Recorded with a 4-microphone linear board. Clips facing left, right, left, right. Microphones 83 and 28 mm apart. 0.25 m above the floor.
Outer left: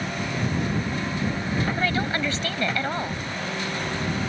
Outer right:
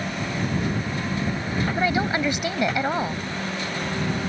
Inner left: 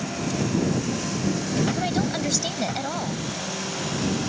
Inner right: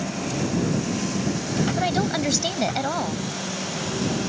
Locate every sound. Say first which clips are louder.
1.8 s a woman speaking: outer right 2 dB, inner right 2 dB; 15° right (ahead or behind)